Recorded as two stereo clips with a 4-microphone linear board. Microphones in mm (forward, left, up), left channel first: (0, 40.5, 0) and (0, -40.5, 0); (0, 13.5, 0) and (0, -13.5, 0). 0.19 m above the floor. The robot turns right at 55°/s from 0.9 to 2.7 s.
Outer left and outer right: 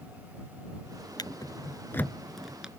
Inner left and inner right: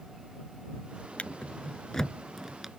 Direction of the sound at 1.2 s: 60° left (ahead or behind).